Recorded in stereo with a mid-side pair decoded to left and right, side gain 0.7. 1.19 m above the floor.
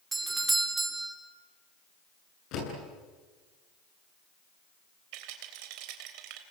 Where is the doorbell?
15° right, 3 m.